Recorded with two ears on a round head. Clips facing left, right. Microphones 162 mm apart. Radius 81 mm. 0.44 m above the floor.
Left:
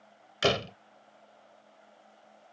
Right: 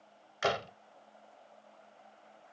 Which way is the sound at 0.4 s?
40° left (ahead or behind).